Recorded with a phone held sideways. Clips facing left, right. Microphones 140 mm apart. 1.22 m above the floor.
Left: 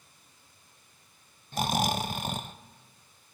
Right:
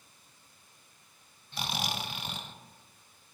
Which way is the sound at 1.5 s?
45° left (ahead or behind).